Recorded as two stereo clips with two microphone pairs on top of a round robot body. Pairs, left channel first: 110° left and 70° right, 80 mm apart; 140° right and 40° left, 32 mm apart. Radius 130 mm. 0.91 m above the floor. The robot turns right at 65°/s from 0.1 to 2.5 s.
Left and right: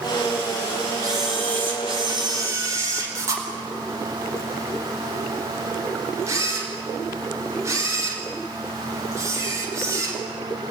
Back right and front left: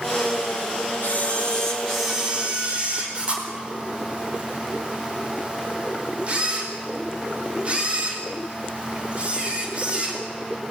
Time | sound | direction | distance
1.0 | a camera shutter | 115° right | 4.5 m